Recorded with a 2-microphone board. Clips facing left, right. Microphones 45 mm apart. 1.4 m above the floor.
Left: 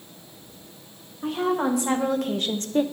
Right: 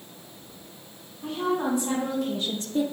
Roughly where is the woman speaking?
Left.